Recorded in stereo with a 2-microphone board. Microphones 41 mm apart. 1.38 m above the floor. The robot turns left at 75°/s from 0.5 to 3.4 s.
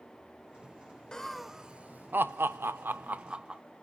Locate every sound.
1.1 s laughter: 15° left (ahead or behind), 0.5 m; by 3.6 s 25° right (ahead or behind), 0.5 m